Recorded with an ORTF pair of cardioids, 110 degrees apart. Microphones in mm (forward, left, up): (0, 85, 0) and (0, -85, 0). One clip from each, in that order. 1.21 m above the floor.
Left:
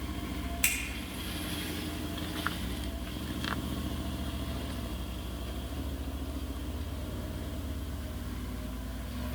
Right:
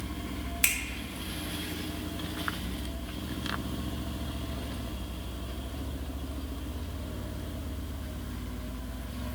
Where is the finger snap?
15° right, 1.9 m.